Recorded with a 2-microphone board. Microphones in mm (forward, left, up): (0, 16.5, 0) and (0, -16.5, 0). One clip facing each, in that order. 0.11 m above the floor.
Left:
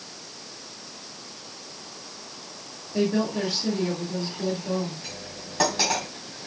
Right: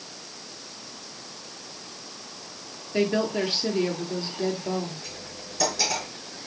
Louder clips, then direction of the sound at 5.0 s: Left 1 dB; 50° left (ahead or behind).